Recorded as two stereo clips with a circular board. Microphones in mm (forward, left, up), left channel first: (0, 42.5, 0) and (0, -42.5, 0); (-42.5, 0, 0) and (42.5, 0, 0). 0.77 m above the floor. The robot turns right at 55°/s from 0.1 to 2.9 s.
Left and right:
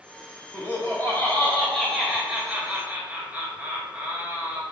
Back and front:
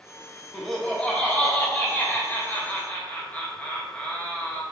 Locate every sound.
0.5 s laughter: 95° left, 0.8 m; by 4.6 s 135° right, 0.8 m